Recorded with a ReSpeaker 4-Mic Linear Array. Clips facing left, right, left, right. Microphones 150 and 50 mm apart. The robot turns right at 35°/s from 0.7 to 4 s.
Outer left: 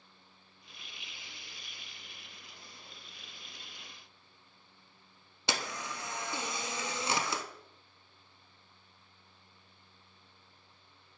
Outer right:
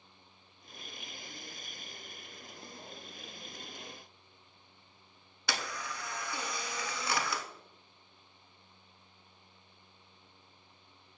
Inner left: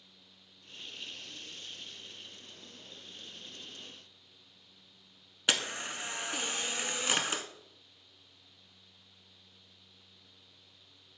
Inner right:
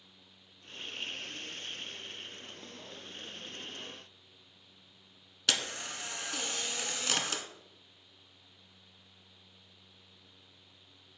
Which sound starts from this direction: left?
A camera shutter, at 5.5 s.